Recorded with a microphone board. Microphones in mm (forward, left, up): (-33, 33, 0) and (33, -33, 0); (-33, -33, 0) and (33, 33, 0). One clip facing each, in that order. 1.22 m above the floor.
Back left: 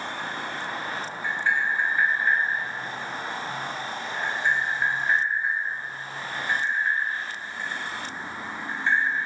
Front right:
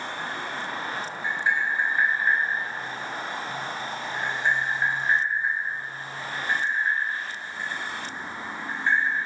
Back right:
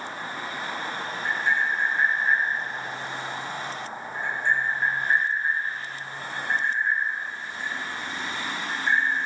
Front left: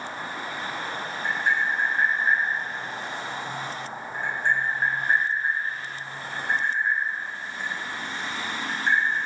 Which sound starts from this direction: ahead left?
Tapping, at 1.2 s.